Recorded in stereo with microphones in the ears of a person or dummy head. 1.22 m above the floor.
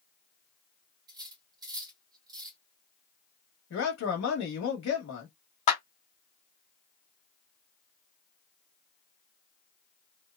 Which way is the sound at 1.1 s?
25° right (ahead or behind).